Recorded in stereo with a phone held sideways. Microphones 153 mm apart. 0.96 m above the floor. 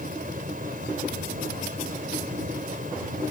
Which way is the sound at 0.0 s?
70° right (ahead or behind).